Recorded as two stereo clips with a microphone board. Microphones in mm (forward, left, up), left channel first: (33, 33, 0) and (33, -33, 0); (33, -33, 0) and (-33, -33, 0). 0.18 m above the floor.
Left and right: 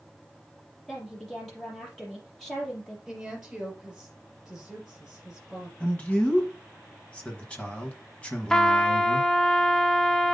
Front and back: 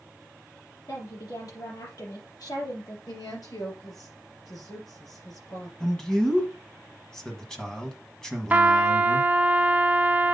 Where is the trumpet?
160° left, 0.7 m.